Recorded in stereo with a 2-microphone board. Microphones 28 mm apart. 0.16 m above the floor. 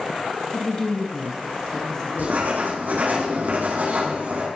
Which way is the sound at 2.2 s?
80° right.